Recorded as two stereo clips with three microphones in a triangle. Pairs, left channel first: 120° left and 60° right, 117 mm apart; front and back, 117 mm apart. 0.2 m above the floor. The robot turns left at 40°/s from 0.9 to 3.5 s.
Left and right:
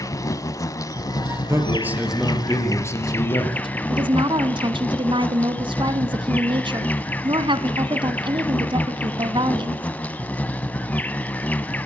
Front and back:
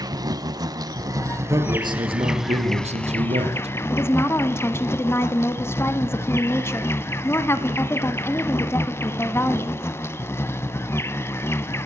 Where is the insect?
155° left, 0.9 m; by 11.9 s 50° left, 0.9 m.